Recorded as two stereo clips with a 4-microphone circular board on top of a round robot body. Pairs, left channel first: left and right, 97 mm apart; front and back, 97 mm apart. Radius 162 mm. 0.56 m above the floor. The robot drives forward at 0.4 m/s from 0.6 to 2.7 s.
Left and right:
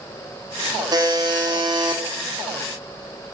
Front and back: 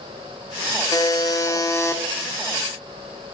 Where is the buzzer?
50° right, 2.5 m; by 2.0 s 60° right, 2 m.